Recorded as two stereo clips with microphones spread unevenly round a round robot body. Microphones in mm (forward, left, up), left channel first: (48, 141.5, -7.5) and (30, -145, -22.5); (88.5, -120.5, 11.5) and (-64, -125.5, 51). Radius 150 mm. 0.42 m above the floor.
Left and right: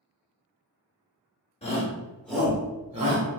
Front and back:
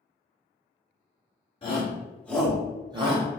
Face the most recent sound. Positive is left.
turn(degrees=-135)